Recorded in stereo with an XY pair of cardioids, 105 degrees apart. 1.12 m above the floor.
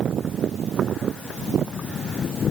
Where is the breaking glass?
No breaking glass in this recording.